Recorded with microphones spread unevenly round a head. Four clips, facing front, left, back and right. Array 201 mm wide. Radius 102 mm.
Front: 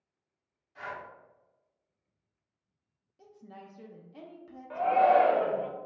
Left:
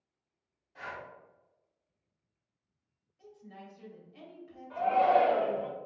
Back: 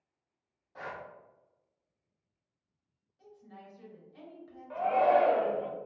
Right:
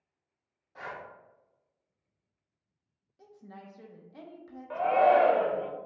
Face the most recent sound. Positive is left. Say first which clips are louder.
# right 3 dB, front 2 dB
turn(degrees=-70)